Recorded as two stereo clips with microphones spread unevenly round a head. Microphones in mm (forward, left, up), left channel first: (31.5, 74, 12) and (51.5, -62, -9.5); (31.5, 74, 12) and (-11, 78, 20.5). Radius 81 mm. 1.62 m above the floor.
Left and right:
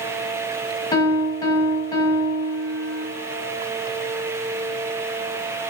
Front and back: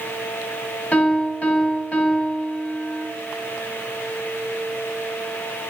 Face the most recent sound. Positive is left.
turn(degrees=60)